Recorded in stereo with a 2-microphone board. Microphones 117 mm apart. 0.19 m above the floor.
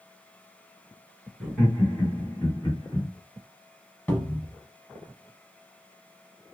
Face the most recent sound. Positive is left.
turn(degrees=15)  # may be behind; listen again after turning